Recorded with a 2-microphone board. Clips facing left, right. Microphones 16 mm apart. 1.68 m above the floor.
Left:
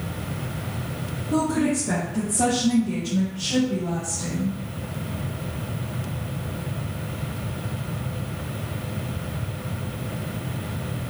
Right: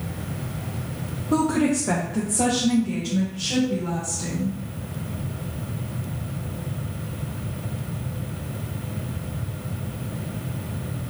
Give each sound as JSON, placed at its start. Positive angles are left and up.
{"t": 1.3, "sound": "a woman speaking", "side_deg": -75, "distance_m": 0.8}